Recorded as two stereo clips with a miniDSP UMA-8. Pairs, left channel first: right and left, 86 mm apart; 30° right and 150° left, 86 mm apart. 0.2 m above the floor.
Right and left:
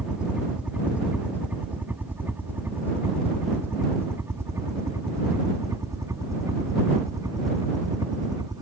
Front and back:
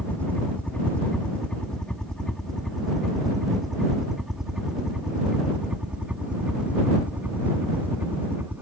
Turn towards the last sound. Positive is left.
turn(degrees=95)